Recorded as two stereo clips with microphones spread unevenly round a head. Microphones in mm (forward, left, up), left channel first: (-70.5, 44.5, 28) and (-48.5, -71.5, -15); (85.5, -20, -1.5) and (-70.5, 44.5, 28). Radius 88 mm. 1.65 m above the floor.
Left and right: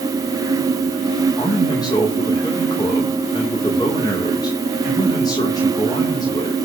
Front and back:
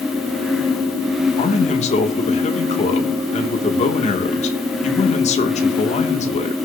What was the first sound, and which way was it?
A man speaking, 30° left.